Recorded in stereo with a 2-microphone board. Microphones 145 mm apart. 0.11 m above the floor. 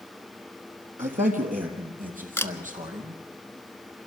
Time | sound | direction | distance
1.0 | a man speaking | 65° right (ahead or behind) | 2.5 m
2.4 | a camera shutter | 15° left (ahead or behind) | 0.7 m